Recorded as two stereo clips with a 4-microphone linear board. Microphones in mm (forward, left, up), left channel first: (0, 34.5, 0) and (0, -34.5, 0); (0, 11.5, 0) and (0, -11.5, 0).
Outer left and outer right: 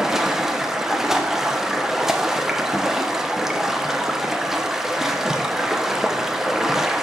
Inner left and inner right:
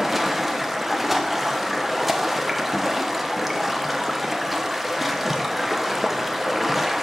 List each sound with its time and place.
0.0 s running water: 5° right (ahead or behind), 1.0 m